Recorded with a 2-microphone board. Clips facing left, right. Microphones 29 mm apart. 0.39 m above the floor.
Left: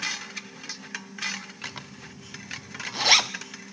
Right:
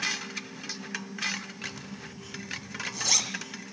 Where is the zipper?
45° left (ahead or behind), 1.2 m.